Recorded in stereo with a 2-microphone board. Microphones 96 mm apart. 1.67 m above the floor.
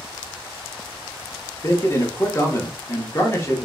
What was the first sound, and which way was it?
A man speaking, 30° left (ahead or behind).